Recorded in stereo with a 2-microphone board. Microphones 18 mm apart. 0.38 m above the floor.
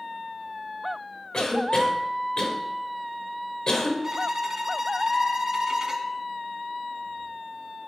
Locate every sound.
1.3 s a cough: 40° left (ahead or behind), 1.6 m
4.0 s a violin: 35° right (ahead or behind), 0.9 m